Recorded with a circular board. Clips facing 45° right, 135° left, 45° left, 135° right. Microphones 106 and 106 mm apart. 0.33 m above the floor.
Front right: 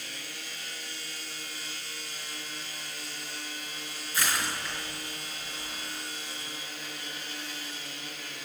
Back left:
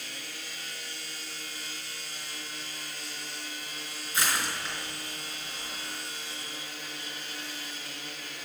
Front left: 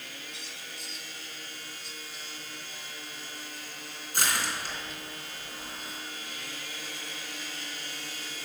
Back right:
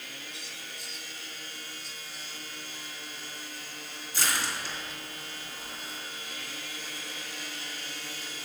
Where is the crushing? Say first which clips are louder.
Even, front left 1 dB; 70° left, 3.5 m.